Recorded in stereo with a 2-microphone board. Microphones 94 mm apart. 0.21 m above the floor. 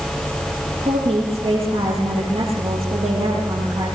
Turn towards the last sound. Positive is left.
turn(degrees=-75)  # may be behind; listen again after turning